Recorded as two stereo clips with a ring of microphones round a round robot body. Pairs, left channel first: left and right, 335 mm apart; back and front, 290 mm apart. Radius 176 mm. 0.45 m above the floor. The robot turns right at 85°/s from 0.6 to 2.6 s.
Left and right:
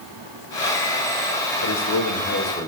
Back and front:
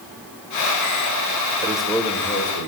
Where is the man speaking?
75° left, 2 m; by 2.7 s 160° left, 2 m.